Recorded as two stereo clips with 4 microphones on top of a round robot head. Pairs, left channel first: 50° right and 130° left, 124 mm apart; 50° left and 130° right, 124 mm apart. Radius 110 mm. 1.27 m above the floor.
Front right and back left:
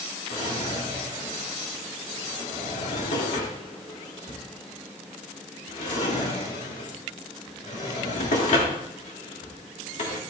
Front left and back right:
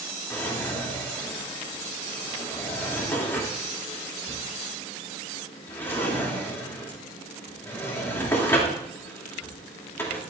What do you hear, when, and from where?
0.3 s a drawer: 25° right, 2.5 m